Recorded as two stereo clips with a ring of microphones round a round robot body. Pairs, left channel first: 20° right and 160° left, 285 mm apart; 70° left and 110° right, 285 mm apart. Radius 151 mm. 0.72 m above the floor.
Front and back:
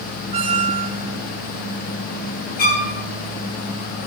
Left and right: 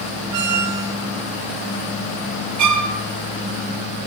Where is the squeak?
135° right, 1.8 m.